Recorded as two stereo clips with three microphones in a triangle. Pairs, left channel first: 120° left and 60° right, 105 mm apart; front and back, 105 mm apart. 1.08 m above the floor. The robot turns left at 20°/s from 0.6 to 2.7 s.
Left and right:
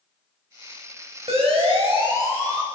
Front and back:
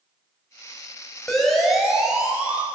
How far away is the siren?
About 7 m.